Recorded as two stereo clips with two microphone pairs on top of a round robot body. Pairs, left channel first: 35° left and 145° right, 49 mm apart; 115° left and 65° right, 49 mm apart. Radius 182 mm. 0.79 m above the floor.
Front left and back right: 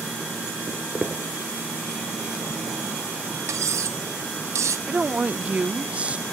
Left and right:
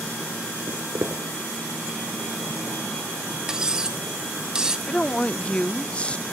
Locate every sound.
0.7 s footsteps: 60° right, 1.0 m
3.5 s cutlery clinking: 140° right, 0.7 m
4.9 s a woman speaking: 165° left, 0.7 m